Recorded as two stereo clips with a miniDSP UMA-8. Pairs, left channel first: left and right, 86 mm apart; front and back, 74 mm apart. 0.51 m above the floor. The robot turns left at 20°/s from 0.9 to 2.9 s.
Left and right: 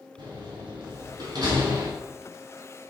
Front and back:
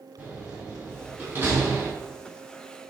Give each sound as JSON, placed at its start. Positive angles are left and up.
{"t": 0.2, "sound": "a door slam", "azimuth_deg": -115, "distance_m": 3.0}